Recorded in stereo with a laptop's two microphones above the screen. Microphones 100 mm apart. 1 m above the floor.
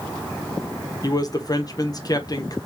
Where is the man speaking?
40° left (ahead or behind), 1.0 m.